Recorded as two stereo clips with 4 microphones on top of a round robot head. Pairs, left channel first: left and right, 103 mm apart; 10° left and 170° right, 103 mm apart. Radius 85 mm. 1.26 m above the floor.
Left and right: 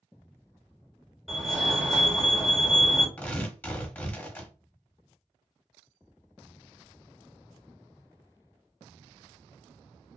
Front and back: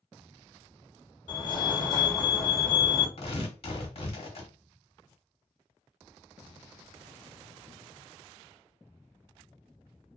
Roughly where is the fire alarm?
Ahead.